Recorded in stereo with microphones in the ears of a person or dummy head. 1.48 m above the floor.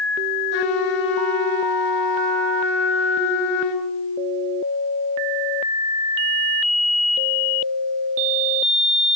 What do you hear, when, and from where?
0.5 s a trumpet: 75° left (ahead or behind), 6 m